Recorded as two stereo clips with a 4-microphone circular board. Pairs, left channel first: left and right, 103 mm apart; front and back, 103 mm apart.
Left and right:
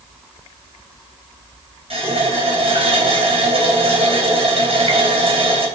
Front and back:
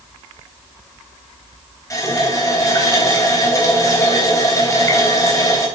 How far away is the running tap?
About 3.5 m.